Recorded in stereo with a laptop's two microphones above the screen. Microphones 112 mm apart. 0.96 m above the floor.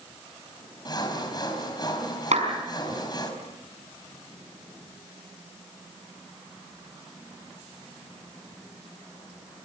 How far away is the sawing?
About 4.5 m.